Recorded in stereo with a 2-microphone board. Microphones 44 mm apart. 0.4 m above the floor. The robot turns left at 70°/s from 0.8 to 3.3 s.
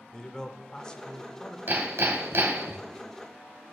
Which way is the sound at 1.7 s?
50° right.